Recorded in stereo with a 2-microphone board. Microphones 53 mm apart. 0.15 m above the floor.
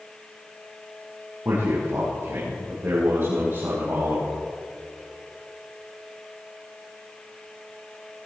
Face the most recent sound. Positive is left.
turn(degrees=-45)  # may be behind; listen again after turning